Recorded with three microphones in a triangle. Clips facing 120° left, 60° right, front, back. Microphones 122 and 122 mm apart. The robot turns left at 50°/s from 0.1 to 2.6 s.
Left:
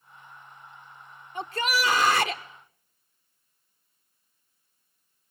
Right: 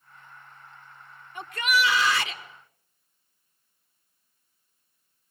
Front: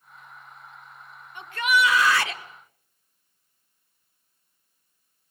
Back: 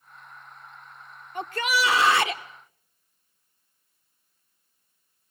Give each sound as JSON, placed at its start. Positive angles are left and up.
{"t": 1.4, "sound": "a shout", "azimuth_deg": 165, "distance_m": 0.6}